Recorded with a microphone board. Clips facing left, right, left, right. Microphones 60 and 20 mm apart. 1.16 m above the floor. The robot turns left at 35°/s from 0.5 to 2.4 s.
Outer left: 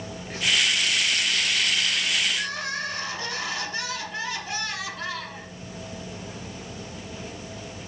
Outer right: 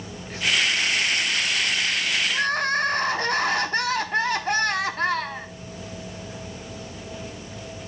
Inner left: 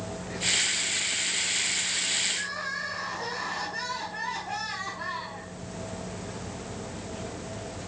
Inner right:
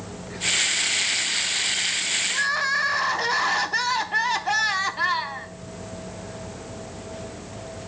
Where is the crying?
55° right (ahead or behind), 1.0 m.